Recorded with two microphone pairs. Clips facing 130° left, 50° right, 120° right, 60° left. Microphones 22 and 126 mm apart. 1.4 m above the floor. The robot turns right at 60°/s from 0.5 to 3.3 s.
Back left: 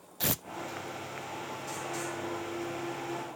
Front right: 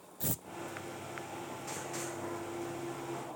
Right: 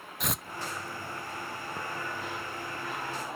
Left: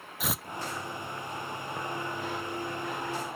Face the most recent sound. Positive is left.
turn(degrees=-45)